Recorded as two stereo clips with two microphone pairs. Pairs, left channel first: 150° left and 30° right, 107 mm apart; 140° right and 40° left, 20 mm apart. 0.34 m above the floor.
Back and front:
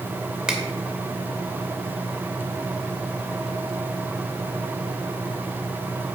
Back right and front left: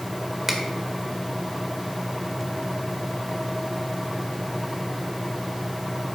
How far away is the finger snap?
About 1.2 m.